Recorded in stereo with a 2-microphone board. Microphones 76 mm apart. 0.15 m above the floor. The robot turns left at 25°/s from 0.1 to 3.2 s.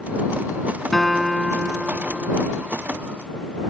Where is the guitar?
5° left; by 2.4 s 35° right.